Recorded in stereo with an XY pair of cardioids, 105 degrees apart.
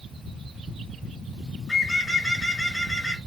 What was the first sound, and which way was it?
A bird, 10° left.